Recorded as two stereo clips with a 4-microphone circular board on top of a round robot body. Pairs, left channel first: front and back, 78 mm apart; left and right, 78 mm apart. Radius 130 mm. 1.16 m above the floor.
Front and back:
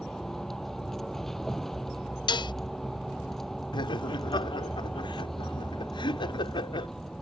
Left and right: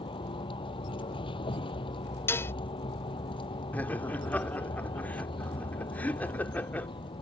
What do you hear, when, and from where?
0.0 s a vehicle: 85° left
2.3 s dishes clattering: 25° left
3.7 s laughter: 20° left